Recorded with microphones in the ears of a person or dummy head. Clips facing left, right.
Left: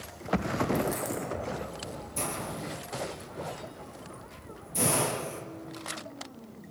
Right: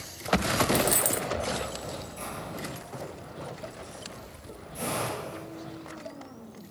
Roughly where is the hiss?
Left.